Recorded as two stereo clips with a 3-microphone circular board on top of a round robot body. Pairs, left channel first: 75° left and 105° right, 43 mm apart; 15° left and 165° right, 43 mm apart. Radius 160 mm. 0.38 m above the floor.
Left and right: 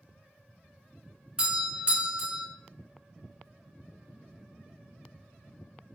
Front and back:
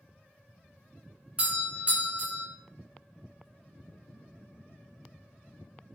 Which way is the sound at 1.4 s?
150° right.